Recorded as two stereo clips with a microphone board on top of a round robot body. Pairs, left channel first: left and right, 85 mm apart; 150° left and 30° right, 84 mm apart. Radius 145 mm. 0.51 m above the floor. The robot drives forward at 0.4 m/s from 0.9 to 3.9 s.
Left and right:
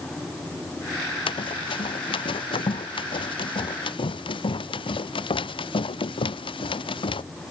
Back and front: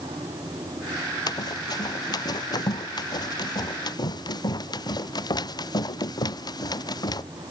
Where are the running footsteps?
110° left.